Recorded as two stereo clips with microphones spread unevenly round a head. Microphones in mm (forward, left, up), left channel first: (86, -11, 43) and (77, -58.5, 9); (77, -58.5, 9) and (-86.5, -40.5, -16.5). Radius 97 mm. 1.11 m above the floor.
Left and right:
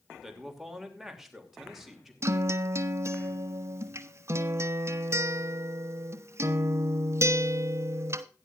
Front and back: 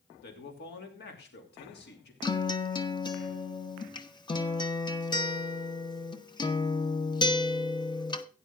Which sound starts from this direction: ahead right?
A man speaking, at 0.2 s.